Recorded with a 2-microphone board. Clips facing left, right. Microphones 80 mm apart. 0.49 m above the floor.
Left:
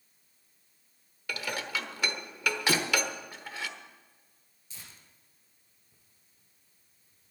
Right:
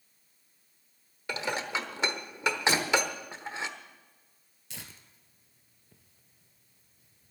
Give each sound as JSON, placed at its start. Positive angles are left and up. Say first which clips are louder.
{"t": 1.3, "sound": "dishes clattering", "louder": "right 3 dB", "side_deg": -25, "distance_m": 1.0}
{"t": 2.7, "sound": "a thud", "louder": "left 1 dB", "side_deg": 45, "distance_m": 2.5}
{"t": 4.7, "sound": "tearing paper", "louder": "right 5 dB", "side_deg": -75, "distance_m": 1.3}